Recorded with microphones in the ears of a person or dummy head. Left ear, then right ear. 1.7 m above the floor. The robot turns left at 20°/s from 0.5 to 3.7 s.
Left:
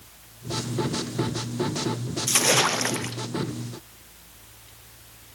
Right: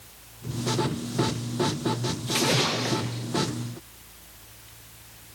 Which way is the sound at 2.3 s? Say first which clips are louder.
Left 3 dB; 35° left (ahead or behind).